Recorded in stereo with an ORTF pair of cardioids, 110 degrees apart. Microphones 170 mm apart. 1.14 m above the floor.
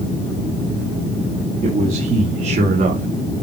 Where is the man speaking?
50° right, 3 m.